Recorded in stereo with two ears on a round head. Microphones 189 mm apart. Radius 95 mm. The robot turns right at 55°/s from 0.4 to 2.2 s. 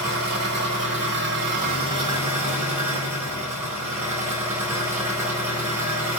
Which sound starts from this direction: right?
An engine running, at 0.0 s.